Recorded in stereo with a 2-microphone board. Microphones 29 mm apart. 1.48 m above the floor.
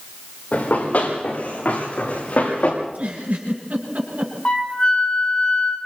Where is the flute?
40° left (ahead or behind), 4 m.